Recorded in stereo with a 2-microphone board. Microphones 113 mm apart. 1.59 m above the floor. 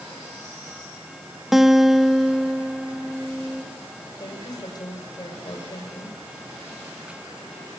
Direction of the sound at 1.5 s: Centre (ahead or behind).